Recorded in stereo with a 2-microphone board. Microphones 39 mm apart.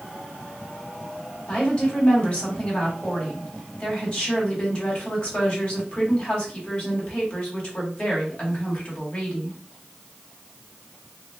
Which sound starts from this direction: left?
A woman speaking, at 1.5 s.